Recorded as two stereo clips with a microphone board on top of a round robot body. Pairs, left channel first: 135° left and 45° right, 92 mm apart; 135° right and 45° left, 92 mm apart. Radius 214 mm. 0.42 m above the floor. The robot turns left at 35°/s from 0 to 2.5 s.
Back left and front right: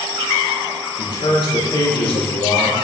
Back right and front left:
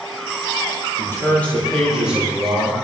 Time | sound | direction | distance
1.0 | a man speaking | 165° left | 9.5 m